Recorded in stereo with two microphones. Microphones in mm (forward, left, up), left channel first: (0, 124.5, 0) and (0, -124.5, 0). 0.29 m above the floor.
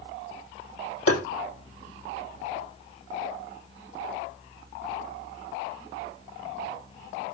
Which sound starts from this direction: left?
Tapping, at 1.1 s.